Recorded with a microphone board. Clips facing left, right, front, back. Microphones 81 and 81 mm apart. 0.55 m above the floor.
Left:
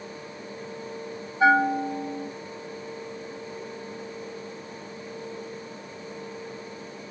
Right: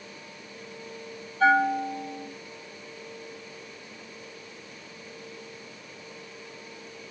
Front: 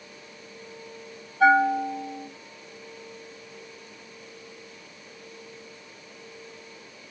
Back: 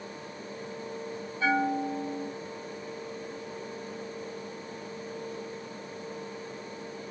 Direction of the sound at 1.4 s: 15° left.